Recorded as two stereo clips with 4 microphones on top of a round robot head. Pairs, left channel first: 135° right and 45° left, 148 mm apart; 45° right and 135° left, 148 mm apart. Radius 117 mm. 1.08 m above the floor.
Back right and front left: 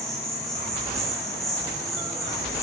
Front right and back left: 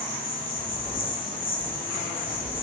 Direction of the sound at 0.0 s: 45° right.